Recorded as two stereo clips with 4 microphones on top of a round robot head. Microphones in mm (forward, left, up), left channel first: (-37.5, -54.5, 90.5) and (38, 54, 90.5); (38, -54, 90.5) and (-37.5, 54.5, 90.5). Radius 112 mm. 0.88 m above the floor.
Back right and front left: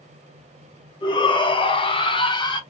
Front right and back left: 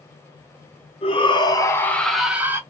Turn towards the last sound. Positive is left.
turn(degrees=-170)